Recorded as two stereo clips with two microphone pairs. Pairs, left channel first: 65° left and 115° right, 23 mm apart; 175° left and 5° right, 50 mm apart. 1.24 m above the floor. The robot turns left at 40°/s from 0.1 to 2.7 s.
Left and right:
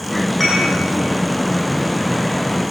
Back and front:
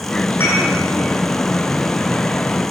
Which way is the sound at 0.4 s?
140° left.